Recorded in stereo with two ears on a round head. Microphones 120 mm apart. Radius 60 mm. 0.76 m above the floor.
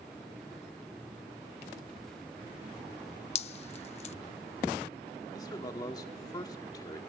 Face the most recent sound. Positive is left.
turn(degrees=30)  # may be behind; listen again after turning